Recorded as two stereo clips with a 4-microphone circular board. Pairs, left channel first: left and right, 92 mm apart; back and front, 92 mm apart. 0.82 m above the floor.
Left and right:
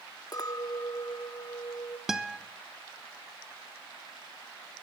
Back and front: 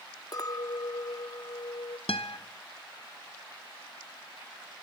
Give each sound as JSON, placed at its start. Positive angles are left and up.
{"t": 0.3, "sound": "a clink", "azimuth_deg": 135, "distance_m": 0.6}
{"t": 2.1, "sound": "a guitar", "azimuth_deg": -175, "distance_m": 0.5}